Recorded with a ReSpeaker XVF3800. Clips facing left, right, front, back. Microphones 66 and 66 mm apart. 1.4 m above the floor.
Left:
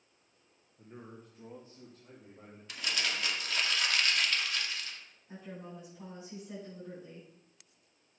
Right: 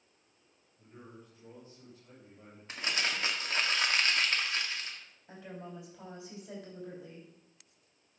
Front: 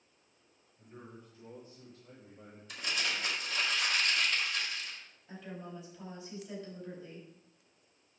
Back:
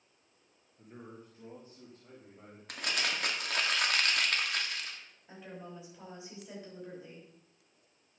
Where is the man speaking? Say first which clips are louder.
Left 2 dB, back 2 dB; 120° left, 1.6 m; by 2.6 s 130° left, 3.5 m.